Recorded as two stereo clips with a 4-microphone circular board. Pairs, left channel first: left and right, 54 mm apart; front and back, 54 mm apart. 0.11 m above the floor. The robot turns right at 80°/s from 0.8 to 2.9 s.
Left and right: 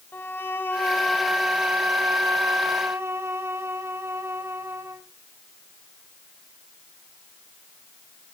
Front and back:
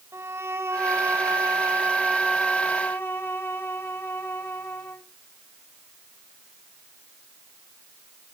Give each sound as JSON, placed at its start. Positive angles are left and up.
{"t": 0.1, "sound": "a violin", "azimuth_deg": 140, "distance_m": 1.4}